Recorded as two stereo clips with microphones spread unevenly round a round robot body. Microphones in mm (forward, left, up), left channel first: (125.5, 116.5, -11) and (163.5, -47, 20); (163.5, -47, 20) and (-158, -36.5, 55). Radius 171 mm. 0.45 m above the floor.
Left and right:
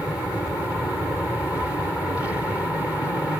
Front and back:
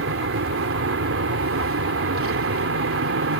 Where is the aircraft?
170° right.